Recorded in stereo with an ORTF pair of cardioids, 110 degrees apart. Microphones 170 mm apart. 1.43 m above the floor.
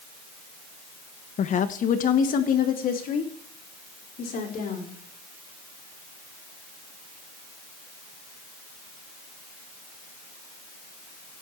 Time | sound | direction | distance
1.4 | a woman speaking | 45° left | 0.9 m